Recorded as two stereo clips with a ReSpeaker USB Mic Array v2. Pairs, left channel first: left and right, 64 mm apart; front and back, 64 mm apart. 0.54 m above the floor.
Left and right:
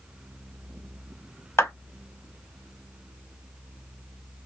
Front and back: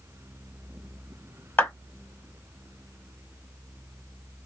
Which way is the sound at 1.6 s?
50° left.